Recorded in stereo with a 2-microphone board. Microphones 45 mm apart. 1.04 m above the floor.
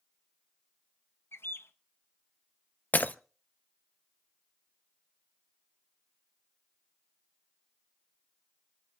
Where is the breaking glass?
40° left (ahead or behind), 0.6 m.